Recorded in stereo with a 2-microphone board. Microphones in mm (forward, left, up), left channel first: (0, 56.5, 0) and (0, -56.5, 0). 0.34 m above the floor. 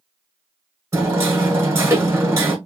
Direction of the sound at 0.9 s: 25° right (ahead or behind).